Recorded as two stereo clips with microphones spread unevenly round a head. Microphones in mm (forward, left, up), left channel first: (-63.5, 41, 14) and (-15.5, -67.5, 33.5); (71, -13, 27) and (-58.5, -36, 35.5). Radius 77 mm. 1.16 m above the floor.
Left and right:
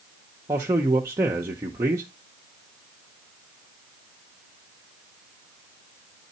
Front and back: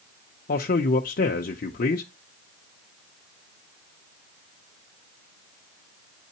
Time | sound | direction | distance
0.5 | a man speaking | 5° left | 0.6 m